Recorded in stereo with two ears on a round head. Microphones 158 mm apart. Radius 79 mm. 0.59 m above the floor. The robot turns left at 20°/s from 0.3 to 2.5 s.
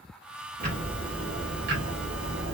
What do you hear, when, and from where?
0.6 s ticking: 45° right, 1.0 m; by 2.5 s 80° right, 1.0 m